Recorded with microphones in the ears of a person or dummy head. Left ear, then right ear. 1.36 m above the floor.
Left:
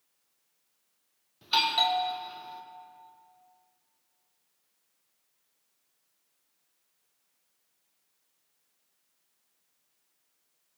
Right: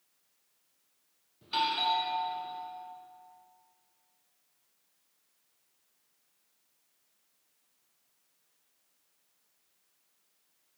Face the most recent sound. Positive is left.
turn(degrees=40)  # may be behind; listen again after turning